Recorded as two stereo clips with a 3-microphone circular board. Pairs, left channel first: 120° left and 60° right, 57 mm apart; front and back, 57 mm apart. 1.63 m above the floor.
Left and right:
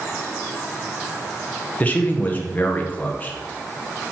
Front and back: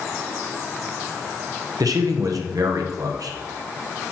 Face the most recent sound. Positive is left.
turn(degrees=-175)